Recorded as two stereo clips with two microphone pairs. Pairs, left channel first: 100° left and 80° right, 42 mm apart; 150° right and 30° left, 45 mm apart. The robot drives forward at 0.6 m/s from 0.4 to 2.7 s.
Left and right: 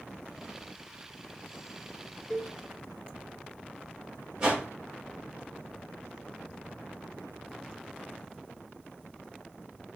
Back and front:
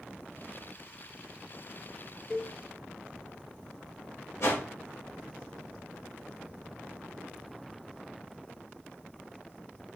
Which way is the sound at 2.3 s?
145° left.